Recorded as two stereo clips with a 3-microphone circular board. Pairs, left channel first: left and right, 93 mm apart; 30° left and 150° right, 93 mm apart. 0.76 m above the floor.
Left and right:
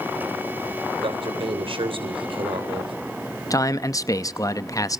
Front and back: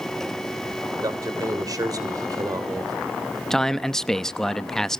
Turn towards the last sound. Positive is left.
turn(degrees=110)